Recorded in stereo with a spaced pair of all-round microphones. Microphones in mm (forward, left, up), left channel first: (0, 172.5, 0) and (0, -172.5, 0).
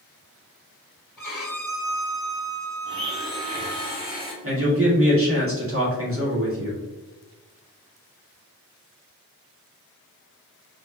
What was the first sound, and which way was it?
A violin, 65° left (ahead or behind).